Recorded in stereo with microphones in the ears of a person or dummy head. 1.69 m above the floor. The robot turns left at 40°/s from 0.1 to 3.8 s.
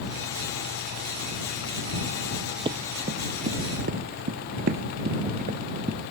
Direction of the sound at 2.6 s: 30° right (ahead or behind).